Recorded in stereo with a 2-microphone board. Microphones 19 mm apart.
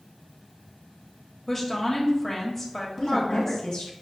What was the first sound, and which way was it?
A woman speaking, 20° left (ahead or behind).